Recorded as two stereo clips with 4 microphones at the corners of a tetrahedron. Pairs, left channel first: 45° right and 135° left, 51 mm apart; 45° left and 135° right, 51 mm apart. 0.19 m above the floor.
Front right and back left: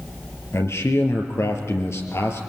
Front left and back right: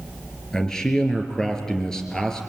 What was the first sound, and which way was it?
A man speaking, 35° right.